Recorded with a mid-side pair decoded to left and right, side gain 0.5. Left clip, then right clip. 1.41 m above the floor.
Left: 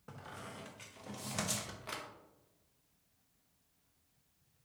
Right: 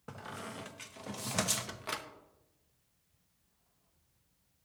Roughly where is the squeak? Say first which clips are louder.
Right 5 dB; ahead right.